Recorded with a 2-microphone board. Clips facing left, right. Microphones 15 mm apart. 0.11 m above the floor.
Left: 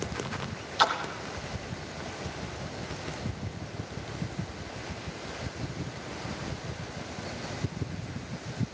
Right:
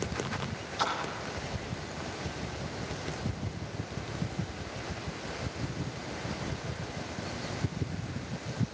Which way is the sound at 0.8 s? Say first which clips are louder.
Left 6 dB; 60° left (ahead or behind).